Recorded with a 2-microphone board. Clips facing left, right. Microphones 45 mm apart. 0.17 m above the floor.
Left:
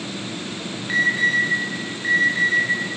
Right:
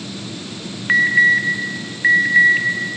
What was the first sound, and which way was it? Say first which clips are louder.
An alarm: right 6 dB; 45° right (ahead or behind).